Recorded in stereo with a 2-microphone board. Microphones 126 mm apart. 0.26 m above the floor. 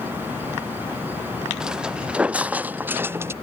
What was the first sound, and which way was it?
Footsteps, 5° right (ahead or behind).